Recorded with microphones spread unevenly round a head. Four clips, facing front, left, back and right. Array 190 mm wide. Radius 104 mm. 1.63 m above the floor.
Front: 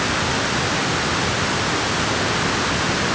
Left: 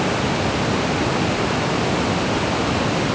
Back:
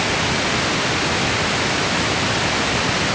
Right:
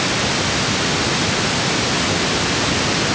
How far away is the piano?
I don't hear a piano.